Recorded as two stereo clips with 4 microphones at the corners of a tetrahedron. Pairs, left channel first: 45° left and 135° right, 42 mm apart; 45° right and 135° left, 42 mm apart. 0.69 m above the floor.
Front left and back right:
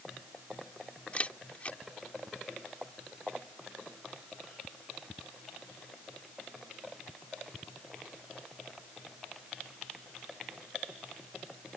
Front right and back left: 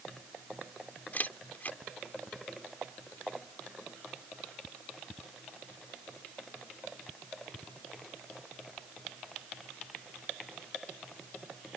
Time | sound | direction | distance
1.1 | a camera shutter | 5° right | ?